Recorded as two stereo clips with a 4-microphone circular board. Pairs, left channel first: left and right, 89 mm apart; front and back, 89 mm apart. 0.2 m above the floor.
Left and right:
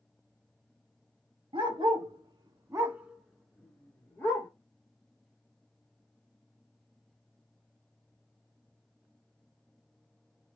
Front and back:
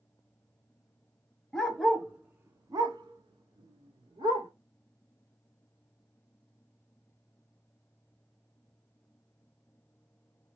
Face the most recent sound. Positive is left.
turn(degrees=155)